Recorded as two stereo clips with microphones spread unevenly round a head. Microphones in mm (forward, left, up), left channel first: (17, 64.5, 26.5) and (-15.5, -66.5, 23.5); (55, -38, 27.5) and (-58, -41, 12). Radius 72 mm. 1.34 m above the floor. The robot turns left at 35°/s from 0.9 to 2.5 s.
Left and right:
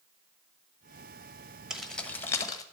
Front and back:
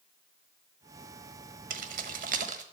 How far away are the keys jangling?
About 1.2 m.